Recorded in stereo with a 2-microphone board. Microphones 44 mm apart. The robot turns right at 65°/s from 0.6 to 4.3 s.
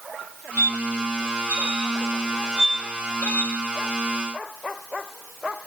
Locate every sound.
0.6 s a squeak: 35° right (ahead or behind), 1.2 m; by 3.6 s 40° left (ahead or behind), 1.2 m